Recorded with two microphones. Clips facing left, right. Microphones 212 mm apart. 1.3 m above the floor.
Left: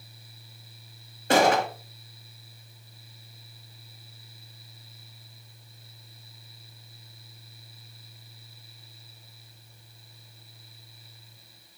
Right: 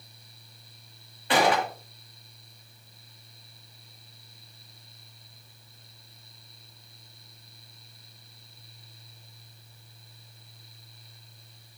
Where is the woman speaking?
No woman speaking in this recording.